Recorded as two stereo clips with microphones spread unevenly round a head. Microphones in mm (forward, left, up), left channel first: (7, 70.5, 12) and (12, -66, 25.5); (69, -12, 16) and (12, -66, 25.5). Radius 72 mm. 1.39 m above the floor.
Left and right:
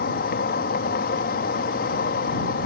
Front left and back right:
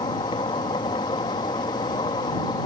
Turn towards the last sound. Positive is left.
turn(degrees=90)